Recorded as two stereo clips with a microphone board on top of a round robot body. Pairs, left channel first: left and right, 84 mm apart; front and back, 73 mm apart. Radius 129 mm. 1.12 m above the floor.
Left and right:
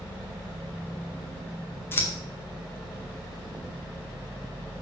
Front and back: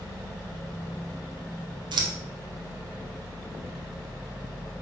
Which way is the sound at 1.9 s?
155° left.